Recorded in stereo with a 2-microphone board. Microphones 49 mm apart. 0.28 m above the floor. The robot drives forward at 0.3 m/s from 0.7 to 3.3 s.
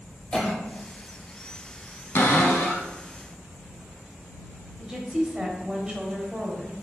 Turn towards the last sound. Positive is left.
turn(degrees=-20)  # may be behind; listen again after turning